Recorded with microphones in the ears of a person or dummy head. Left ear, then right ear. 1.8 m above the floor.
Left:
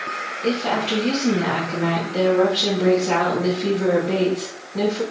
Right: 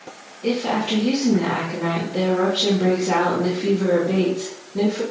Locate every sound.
0.4 s a woman speaking: 15° left (ahead or behind), 2 m